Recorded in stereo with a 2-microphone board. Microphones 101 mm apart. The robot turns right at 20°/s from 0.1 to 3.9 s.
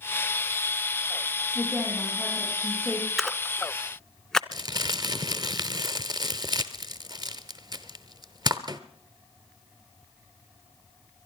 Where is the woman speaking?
165° left, 7.5 m; by 3.1 s 165° right, 7.5 m.